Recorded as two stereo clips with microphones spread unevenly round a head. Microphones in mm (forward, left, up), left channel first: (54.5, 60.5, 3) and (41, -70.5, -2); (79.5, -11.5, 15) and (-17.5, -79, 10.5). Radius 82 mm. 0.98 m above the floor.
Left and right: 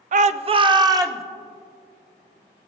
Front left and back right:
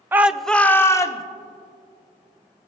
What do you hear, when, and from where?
0.1 s a shout: 75° right, 0.6 m; by 1.2 s 25° right, 1.1 m